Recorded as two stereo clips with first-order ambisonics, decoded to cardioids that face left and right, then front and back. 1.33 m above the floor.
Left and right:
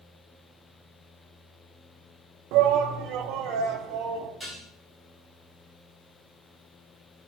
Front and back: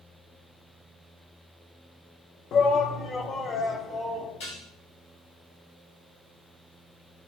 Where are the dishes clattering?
10° left, 4 m.